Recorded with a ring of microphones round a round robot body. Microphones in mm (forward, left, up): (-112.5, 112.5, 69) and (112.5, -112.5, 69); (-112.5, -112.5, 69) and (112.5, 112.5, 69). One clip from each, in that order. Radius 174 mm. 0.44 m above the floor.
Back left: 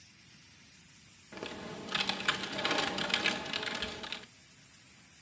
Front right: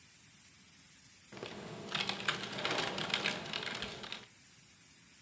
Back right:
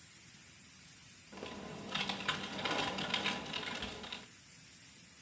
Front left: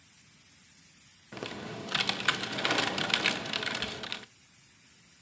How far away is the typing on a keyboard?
About 0.6 m.